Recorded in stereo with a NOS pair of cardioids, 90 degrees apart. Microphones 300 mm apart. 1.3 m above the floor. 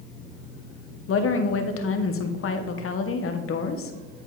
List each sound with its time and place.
1.1 s a woman speaking: 50° left, 1.1 m